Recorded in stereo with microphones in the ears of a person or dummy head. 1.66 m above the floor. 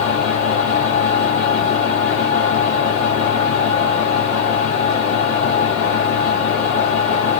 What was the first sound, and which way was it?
A fan, 25° right (ahead or behind).